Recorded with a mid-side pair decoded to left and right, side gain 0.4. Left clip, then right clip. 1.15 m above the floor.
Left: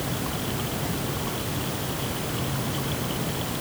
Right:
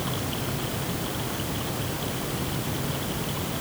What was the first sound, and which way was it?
Only background noise.